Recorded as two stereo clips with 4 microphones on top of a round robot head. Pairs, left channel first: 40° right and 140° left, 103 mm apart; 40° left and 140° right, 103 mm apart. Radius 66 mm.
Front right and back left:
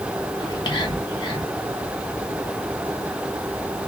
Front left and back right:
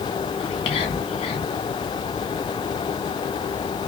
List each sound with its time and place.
0.4 s whispering: straight ahead, 1.6 m